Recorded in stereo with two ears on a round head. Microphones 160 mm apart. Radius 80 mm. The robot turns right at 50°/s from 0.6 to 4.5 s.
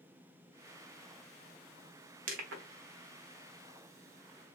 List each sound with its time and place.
2.3 s crushing: 45° right (ahead or behind), 0.7 m; by 2.6 s 60° right (ahead or behind), 0.7 m